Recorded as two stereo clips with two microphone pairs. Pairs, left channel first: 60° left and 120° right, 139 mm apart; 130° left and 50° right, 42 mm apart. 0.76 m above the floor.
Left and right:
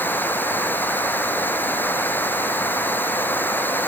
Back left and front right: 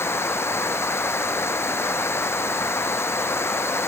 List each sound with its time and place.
0.0 s running water: 135° left